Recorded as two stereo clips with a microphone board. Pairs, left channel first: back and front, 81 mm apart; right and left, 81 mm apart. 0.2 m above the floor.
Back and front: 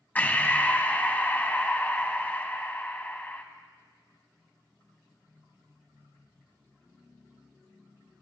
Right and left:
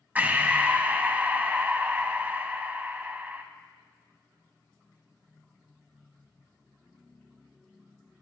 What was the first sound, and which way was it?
Breathing, 135° left.